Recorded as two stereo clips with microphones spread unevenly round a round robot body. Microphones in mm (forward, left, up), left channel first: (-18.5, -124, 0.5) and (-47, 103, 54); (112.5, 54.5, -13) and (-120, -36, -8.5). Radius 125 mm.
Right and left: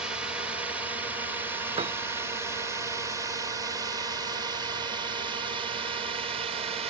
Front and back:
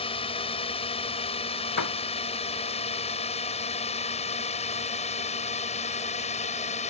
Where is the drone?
15° right; by 6.9 s 35° left.